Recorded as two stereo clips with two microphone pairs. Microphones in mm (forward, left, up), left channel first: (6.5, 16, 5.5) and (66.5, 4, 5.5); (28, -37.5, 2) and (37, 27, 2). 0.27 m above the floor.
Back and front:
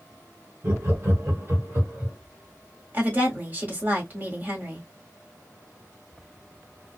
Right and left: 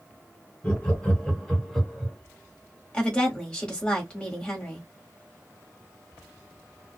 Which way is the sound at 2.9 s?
35° right.